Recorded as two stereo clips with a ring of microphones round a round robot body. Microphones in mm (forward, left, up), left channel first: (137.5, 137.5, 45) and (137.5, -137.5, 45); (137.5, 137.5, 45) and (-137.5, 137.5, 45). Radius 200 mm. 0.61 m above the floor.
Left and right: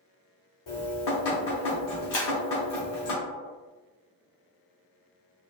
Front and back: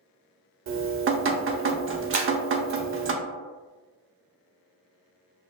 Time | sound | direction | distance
0.7 | dripping | 130° left | 0.5 m
2.1 | breaking glass | 125° left | 1.0 m